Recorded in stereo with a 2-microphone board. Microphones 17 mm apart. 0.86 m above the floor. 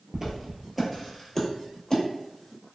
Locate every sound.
0.1 s footsteps: 20° right (ahead or behind), 0.9 m; by 2.0 s 25° left (ahead or behind), 1.2 m